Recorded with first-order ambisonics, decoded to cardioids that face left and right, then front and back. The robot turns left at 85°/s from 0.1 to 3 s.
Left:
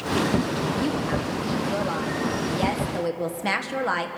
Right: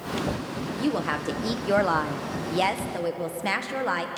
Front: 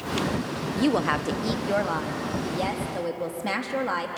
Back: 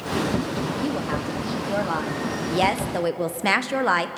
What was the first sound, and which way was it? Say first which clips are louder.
A woman speaking: left 1 dB, front 3 dB; 5° left.